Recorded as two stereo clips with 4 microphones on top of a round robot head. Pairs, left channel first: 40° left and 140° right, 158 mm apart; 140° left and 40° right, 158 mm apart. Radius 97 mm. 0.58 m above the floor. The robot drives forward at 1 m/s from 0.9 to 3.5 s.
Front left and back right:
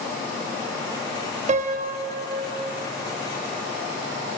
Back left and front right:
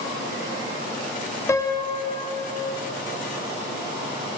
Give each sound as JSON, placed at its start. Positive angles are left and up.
{"t": 1.5, "sound": "a piano", "azimuth_deg": -155, "distance_m": 0.9}